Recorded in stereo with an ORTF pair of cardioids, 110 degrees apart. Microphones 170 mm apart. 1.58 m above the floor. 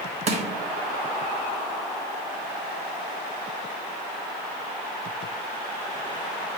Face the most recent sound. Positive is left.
turn(degrees=-40)